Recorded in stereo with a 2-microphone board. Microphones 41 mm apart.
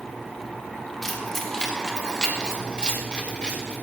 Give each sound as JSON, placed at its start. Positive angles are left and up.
{"t": 1.0, "sound": "keys jangling", "side_deg": 10, "distance_m": 2.0}